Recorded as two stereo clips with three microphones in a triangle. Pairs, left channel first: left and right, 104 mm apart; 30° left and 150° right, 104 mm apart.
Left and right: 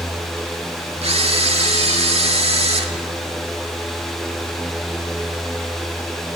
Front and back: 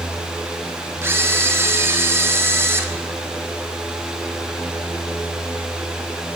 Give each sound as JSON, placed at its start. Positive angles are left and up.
{"t": 1.0, "sound": "a camera shutter", "azimuth_deg": -85, "distance_m": 0.8}